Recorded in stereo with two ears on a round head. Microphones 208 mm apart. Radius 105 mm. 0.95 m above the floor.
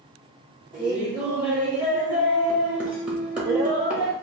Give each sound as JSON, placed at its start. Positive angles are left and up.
{"t": 0.7, "sound": "laughter", "side_deg": -5, "distance_m": 1.0}